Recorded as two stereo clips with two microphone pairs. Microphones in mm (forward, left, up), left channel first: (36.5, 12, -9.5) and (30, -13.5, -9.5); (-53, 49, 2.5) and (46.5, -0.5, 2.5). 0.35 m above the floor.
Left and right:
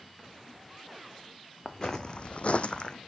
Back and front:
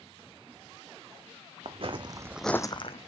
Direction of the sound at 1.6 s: 5° left.